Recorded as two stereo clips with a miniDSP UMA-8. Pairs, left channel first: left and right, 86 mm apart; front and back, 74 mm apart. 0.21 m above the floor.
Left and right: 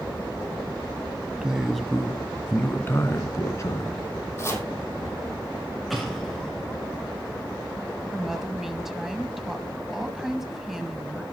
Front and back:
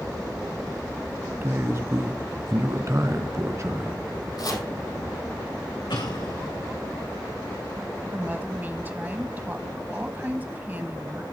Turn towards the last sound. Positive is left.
turn(degrees=-170)